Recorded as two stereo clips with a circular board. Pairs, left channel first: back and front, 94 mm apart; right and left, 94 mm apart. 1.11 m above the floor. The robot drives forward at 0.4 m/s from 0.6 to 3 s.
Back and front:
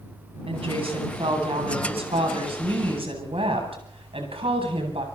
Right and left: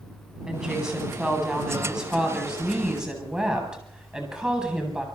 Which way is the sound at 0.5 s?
5° left.